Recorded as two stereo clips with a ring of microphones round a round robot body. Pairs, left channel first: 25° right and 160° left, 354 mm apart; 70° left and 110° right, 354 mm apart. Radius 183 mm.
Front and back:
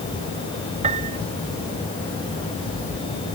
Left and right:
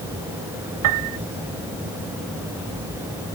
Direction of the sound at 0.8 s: 130° right.